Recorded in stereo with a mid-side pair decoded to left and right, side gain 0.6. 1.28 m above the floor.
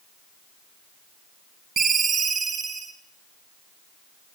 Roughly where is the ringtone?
Ahead right.